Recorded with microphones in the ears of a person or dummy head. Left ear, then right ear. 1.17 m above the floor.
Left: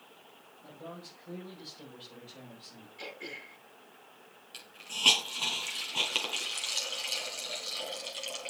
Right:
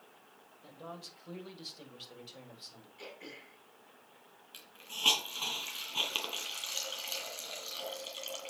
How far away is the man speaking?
About 5 m.